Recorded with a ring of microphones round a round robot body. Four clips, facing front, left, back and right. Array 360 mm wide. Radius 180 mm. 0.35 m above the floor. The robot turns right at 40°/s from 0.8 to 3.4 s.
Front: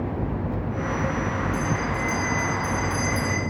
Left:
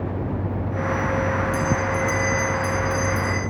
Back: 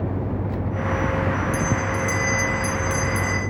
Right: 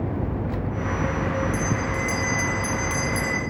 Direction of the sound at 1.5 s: 170° left.